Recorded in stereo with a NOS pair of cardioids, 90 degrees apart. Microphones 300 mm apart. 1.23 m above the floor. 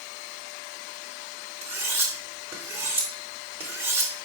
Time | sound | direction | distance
1.6 | cutlery clinking | 10° right | 2.5 m